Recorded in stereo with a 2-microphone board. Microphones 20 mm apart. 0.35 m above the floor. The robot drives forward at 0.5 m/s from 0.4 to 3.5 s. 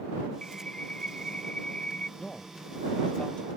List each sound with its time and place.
0.4 s a bird: 50° left (ahead or behind)
2.2 s a man speaking: 60° left (ahead or behind)